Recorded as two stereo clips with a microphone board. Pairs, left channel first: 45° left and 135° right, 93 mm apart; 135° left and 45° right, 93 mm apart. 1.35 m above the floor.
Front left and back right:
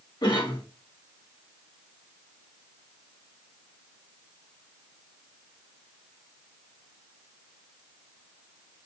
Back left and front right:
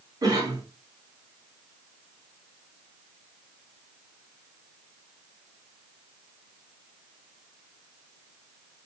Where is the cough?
5° left, 2 m.